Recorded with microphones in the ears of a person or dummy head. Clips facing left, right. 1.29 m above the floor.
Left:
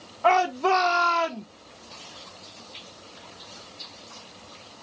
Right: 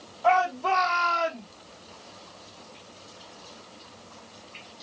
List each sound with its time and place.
0.2 s a shout: 85° left, 1.4 m; by 1.5 s 65° left (ahead or behind), 0.9 m